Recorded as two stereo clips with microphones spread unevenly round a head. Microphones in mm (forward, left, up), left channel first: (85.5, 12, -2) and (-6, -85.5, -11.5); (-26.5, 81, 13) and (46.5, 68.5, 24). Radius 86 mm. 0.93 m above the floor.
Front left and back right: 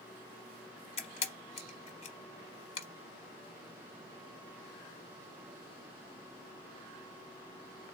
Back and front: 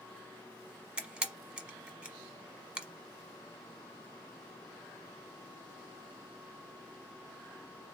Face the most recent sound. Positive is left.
turn(degrees=55)